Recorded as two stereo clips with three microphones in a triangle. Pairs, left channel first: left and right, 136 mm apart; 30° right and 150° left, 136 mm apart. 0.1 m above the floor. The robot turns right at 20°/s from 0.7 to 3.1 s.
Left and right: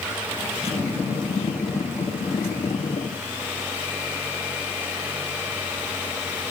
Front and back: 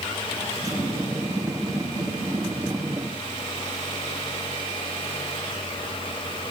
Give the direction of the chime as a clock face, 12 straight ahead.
I don't hear a chime.